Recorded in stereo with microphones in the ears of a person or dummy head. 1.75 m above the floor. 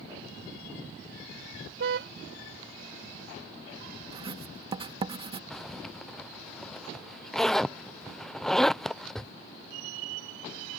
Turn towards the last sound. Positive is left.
turn(degrees=5)  # may be behind; listen again after turning